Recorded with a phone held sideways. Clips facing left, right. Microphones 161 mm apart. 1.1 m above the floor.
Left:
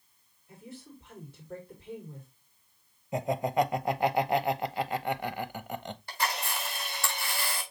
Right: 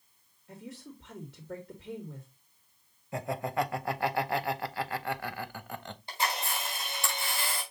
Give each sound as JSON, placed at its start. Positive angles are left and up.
{"t": 0.5, "sound": "a woman speaking", "side_deg": -80, "distance_m": 3.0}
{"t": 3.1, "sound": "laughter", "side_deg": 20, "distance_m": 0.7}
{"t": 6.1, "sound": "a camera shutter", "side_deg": -20, "distance_m": 4.0}